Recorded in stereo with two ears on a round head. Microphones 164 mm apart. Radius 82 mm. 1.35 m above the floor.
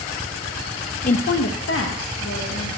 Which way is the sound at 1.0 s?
40° left (ahead or behind).